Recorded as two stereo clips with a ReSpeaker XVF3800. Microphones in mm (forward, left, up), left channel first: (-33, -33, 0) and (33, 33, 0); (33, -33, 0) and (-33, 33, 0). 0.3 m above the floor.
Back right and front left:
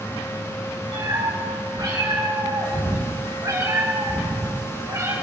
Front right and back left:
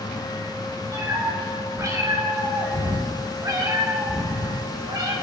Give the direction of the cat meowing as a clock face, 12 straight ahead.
9 o'clock.